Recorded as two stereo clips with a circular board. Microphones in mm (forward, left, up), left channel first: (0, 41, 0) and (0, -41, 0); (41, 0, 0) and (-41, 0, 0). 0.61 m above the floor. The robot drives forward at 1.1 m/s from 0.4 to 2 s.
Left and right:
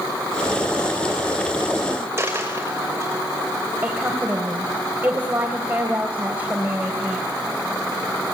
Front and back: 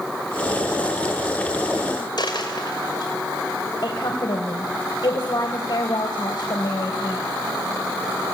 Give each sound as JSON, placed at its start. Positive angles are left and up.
{"t": 2.2, "sound": "a dropped coin", "azimuth_deg": -30, "distance_m": 5.5}
{"t": 3.8, "sound": "a woman speaking", "azimuth_deg": -20, "distance_m": 3.5}